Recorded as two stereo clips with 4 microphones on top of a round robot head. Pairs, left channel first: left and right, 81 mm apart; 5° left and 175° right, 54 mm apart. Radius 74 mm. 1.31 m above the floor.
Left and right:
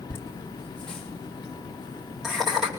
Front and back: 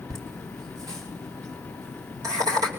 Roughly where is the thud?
No thud in this recording.